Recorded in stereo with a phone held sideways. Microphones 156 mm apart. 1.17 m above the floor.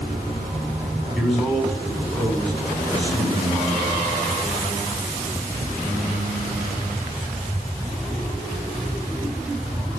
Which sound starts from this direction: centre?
A man speaking, at 1.1 s.